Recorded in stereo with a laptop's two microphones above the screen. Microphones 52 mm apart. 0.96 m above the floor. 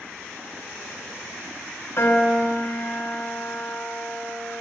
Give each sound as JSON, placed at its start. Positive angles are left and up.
{"t": 2.0, "sound": "a piano", "side_deg": 60, "distance_m": 1.7}